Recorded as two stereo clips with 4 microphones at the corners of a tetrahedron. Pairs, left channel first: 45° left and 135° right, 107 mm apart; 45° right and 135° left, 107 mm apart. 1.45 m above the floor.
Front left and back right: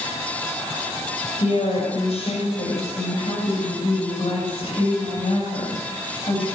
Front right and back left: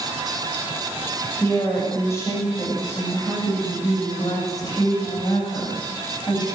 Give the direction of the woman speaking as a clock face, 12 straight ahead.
11 o'clock.